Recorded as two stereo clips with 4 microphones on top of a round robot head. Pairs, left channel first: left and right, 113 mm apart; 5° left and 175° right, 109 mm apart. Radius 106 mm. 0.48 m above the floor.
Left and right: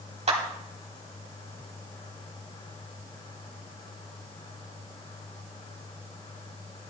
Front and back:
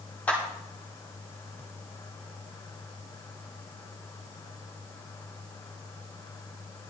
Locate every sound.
0.3 s a clap: 70° right, 3 m